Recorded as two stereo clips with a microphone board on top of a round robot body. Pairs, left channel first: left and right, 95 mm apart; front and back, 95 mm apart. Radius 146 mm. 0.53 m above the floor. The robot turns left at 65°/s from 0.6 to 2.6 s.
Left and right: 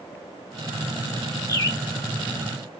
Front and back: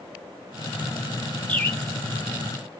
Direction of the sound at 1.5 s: 65° left.